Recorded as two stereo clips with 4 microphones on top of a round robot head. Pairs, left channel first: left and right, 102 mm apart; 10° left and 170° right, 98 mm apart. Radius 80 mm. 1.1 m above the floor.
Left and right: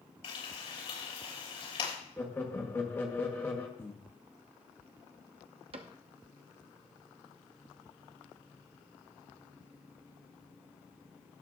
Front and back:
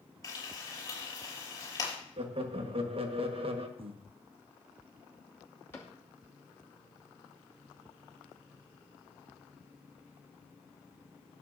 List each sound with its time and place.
0.2 s frying: 60° left, 6 m
2.2 s laughter: 165° left, 1.5 m
3.8 s breathing: 165° left, 1.0 m
5.7 s a cupboard door: 65° right, 0.8 m